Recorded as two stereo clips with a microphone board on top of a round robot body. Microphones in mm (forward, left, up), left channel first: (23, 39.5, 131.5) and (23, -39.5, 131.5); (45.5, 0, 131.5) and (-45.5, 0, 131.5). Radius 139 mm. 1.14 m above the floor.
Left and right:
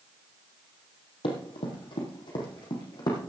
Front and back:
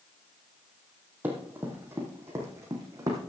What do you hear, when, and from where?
1.2 s running footsteps: 110° left, 3 m; by 3.2 s 125° left, 3.5 m